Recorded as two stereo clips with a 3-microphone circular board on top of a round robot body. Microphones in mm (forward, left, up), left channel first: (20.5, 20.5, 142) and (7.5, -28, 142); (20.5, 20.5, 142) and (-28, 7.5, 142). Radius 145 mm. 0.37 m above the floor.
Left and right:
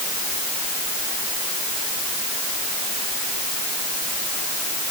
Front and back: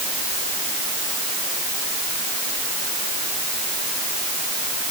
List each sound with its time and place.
Only background noise.